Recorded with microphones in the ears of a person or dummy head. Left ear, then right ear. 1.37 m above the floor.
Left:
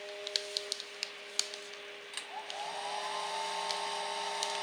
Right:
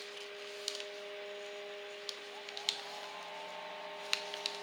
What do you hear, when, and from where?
2.1 s a hair dryer: 55° left (ahead or behind)